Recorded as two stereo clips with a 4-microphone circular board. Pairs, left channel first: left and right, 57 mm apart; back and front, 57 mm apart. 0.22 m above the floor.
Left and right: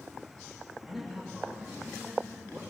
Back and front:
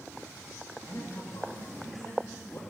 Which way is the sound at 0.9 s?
Straight behind.